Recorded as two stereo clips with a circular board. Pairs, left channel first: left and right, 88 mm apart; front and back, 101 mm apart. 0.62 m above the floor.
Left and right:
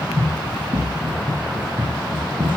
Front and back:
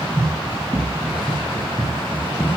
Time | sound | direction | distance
0.2 | running footsteps | 100° right | 4 m